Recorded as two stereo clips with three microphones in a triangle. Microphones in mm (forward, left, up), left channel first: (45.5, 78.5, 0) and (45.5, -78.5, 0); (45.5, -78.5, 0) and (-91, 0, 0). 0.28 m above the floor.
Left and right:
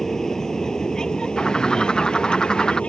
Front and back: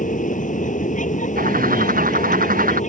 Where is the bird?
175° left.